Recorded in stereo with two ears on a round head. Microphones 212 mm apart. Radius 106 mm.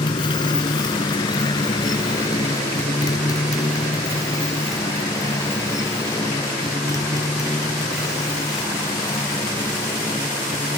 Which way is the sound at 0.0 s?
20° left (ahead or behind).